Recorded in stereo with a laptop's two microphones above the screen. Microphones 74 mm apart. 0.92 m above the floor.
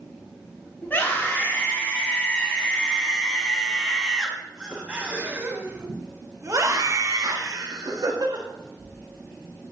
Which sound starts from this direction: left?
A scream, at 0.8 s.